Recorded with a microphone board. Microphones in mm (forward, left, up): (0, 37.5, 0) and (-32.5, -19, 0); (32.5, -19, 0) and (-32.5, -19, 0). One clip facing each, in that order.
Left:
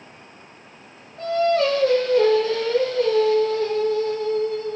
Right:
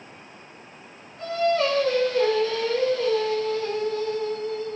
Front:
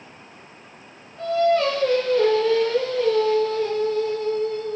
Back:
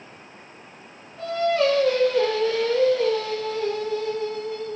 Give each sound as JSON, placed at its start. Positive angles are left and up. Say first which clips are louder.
{"t": 1.2, "sound": "singing", "louder": "left 3 dB, front 2 dB", "azimuth_deg": 95, "distance_m": 4.5}